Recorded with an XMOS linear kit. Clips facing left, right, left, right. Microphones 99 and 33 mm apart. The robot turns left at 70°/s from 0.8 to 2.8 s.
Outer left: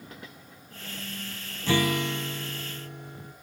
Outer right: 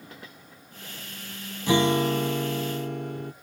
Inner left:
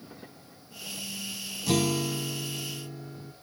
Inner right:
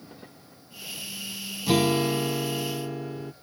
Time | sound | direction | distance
1.7 | a guitar | 15° right | 0.8 m